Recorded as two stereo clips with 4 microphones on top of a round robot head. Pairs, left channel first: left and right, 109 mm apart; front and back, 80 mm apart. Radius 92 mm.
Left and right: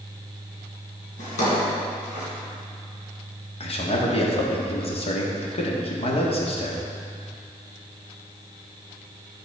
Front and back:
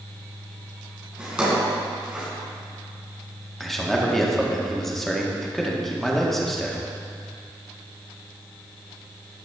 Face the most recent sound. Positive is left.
turn(degrees=90)